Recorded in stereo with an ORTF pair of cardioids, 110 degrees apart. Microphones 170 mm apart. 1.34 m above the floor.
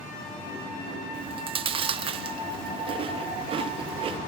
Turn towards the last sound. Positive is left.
turn(degrees=-35)